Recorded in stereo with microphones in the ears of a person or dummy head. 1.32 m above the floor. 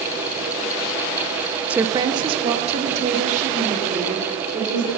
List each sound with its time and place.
1.7 s a woman speaking: 10° right (ahead or behind), 0.6 m; by 4.9 s 45° right (ahead or behind), 4.5 m